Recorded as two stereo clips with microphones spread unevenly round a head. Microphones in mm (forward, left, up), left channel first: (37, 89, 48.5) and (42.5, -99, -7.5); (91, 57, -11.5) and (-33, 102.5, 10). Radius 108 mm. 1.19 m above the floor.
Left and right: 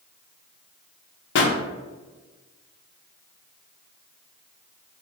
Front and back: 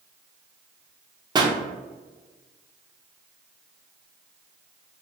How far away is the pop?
About 0.5 m.